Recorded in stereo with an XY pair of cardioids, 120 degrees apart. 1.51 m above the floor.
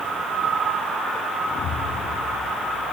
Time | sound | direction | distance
1.6 | an explosion | 55° left | 9.5 m